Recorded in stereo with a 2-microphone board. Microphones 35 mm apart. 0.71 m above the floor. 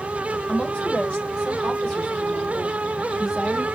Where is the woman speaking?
35° left (ahead or behind), 2.5 m; by 3.6 s centre (ahead or behind), 2.5 m.